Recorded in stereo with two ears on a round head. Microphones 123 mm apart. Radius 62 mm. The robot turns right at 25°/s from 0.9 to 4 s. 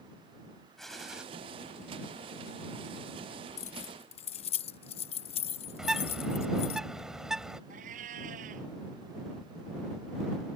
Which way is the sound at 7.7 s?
65° right (ahead or behind).